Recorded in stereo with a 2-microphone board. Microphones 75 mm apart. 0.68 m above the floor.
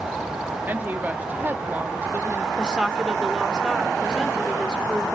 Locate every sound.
0.7 s a woman speaking: 25° right (ahead or behind), 1.2 m
2.6 s a woman speaking: 10° right (ahead or behind), 1.7 m